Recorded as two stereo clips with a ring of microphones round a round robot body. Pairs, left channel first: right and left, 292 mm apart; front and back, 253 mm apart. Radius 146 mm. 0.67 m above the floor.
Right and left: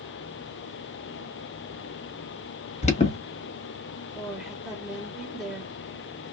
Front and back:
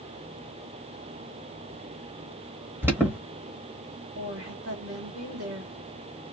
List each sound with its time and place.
2.8 s an alarm: 110° right, 1.1 m
4.2 s a woman speaking: straight behind, 1.3 m